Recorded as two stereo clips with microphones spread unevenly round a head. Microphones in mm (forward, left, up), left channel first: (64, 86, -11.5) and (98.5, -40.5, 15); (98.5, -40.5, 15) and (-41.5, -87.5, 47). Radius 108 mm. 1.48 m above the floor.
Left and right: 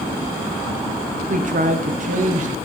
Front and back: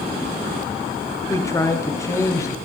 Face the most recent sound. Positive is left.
turn(degrees=-50)